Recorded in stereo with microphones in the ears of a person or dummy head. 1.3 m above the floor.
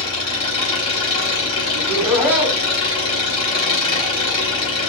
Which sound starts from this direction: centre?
Laughter, at 1.7 s.